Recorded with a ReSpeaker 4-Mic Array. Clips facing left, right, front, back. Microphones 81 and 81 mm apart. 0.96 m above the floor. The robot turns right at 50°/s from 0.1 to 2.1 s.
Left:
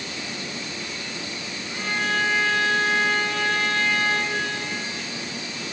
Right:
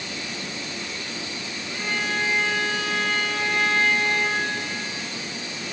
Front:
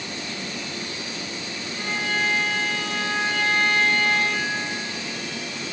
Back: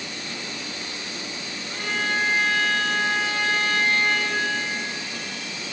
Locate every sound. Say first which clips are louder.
1.7 s a violin: left 2 dB, back 1 dB; straight behind, 3.5 m; by 4.5 s 160° right, 3.5 m